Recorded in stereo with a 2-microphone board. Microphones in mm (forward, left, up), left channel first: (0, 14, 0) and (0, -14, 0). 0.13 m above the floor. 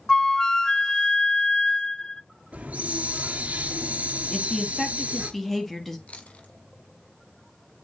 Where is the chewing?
45° left (ahead or behind), 1.7 m.